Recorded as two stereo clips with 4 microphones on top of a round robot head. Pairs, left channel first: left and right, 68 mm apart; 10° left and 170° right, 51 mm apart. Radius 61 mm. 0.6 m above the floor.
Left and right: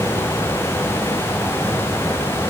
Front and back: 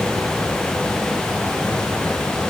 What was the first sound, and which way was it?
Only background noise.